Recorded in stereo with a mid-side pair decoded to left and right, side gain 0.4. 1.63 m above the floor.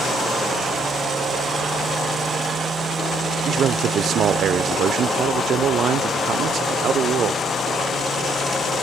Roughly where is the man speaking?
Right.